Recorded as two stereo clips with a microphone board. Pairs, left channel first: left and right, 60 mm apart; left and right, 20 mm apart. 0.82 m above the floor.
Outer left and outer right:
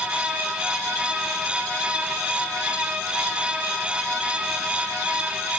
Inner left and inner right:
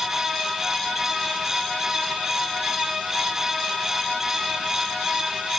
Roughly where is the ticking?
I don't hear ticking.